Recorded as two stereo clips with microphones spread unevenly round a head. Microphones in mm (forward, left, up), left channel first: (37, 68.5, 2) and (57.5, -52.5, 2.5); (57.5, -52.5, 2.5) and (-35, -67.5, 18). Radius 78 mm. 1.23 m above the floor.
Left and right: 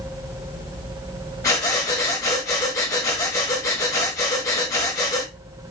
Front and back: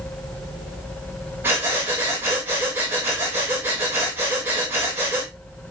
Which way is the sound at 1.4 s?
150° left.